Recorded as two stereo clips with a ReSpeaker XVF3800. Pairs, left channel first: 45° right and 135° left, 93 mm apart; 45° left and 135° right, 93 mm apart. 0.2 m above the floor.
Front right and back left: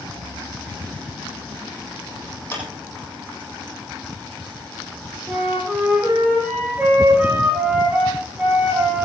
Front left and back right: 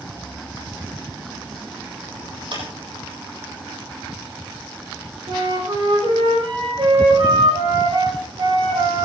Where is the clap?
110° right, 7.5 m.